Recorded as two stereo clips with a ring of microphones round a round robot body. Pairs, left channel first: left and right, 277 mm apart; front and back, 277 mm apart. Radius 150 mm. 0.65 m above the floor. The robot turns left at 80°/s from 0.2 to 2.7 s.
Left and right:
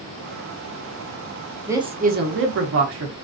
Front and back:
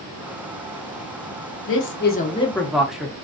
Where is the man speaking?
10° right, 0.7 m; by 3.1 s 90° right, 0.7 m.